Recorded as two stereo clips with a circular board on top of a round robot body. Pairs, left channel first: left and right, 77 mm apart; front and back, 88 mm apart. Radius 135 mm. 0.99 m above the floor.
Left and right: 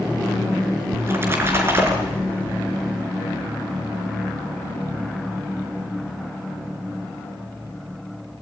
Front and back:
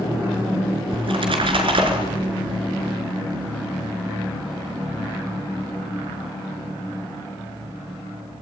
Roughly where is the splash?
Behind right.